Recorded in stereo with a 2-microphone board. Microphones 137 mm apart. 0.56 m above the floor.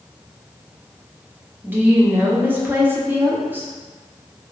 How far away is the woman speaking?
About 0.6 m.